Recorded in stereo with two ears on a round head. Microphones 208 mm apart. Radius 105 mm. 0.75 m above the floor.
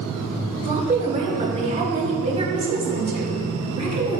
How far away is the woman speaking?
About 2 m.